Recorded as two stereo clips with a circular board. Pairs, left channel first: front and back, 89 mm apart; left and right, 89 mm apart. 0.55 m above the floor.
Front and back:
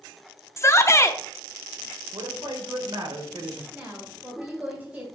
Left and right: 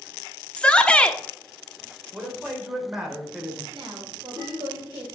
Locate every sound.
0.6 s a shout: 20° left, 0.8 m
2.1 s a man speaking: 170° right, 2 m
3.7 s a woman speaking: 115° right, 3 m